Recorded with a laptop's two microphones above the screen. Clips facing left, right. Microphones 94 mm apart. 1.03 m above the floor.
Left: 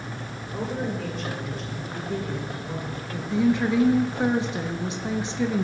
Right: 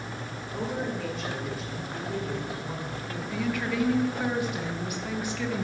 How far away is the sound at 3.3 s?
About 0.9 m.